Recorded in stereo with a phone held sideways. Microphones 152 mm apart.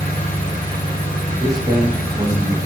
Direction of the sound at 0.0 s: 65° left (ahead or behind).